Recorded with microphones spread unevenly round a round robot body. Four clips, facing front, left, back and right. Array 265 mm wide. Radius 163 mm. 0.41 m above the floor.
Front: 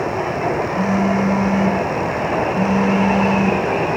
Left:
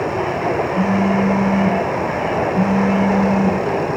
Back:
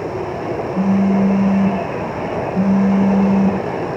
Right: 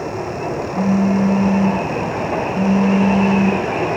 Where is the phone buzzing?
175° left, 8 m.